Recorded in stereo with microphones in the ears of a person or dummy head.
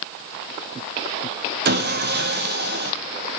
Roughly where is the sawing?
Right.